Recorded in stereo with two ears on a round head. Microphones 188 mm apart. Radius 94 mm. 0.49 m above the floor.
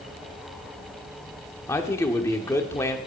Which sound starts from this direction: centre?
A man speaking, at 1.7 s.